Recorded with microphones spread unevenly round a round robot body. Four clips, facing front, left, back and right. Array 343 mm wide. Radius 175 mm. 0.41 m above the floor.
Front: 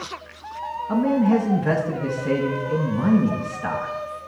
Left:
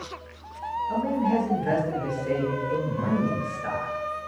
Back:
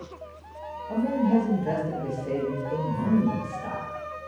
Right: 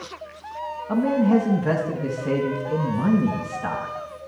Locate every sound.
0.9 s a man speaking: 45° right, 4.5 m